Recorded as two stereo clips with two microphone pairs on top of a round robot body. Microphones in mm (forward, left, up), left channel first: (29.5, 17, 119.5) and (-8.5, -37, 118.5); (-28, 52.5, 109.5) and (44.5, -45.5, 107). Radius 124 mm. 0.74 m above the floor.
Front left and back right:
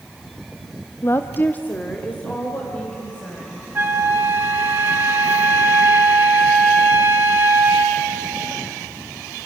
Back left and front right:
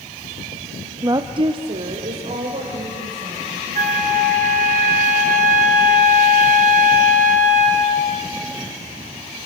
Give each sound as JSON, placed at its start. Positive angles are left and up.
{"t": 1.0, "sound": "a woman speaking", "azimuth_deg": 10, "distance_m": 0.8}
{"t": 3.8, "sound": "a flute", "azimuth_deg": -65, "distance_m": 2.5}